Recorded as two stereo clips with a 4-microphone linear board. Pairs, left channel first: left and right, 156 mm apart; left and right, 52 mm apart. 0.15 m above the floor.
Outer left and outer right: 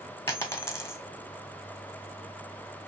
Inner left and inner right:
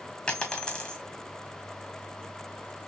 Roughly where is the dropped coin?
Centre.